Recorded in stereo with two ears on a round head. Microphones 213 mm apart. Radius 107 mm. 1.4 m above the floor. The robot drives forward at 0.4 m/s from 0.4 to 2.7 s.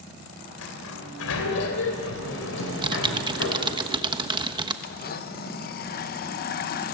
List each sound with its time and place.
0.6 s a sliding door: 70° left (ahead or behind), 3.5 m; by 3.6 s 60° left (ahead or behind), 4 m
2.6 s typing on a keyboard: 20° right (ahead or behind), 1.0 m
4.8 s a blender: 40° left (ahead or behind), 1.0 m